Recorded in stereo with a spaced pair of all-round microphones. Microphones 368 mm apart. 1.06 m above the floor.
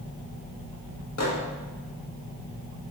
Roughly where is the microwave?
Left.